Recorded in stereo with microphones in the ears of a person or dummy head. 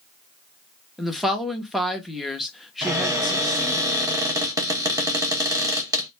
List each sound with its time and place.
1.0 s a woman speaking: centre (ahead or behind), 0.6 m
2.8 s a cupboard door: 10° right (ahead or behind), 0.6 m